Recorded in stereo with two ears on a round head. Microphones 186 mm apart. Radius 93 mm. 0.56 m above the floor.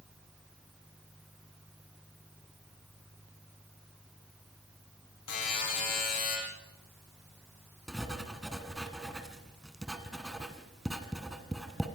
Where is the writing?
Centre (ahead or behind), 1.9 m.